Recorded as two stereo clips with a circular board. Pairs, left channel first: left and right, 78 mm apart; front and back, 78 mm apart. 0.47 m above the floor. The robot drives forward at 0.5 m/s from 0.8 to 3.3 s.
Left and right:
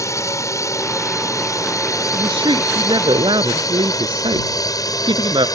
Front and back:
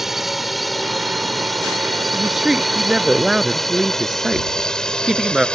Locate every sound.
0.0 s a drone: 95° left; by 5.6 s 75° left
2.1 s a woman speaking: 95° right